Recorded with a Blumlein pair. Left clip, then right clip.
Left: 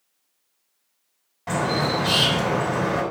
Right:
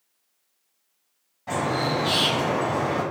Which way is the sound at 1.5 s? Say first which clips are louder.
Left 2 dB; 60° left.